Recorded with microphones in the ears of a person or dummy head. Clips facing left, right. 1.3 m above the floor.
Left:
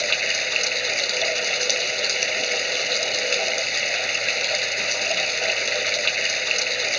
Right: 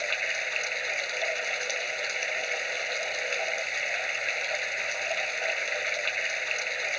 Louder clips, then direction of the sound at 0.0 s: Left 6 dB; 60° left (ahead or behind).